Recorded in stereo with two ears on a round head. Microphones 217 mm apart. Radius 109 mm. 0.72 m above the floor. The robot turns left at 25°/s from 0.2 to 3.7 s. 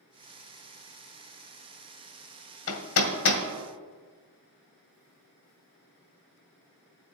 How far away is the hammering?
About 1.7 m.